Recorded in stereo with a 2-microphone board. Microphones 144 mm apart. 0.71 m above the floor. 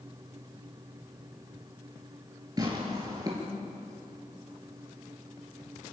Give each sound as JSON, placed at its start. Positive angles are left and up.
{"t": 2.6, "sound": "tearing paper", "side_deg": -25, "distance_m": 4.5}